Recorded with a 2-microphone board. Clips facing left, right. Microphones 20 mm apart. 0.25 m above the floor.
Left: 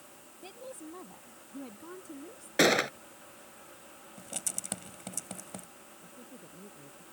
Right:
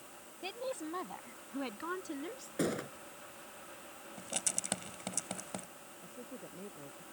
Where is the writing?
15° right (ahead or behind).